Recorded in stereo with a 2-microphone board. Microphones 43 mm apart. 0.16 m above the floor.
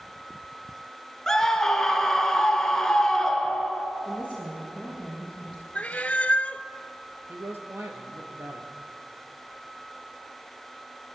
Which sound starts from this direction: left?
A cat meowing, at 5.8 s.